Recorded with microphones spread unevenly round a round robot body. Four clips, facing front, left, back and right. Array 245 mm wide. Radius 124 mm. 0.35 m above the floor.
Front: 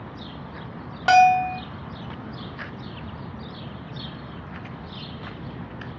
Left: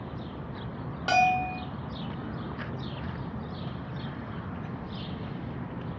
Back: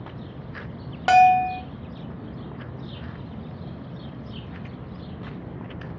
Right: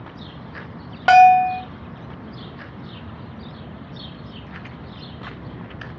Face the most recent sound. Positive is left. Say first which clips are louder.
# right 14 dB, even
turn(degrees=-100)